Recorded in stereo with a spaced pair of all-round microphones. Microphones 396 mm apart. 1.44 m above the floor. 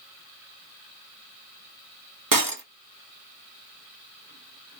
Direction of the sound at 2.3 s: 55° right (ahead or behind).